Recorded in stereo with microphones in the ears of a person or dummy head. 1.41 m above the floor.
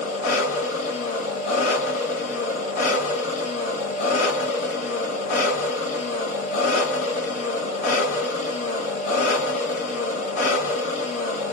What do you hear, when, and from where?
0.0 s an engine running: 40° left (ahead or behind), 1.7 m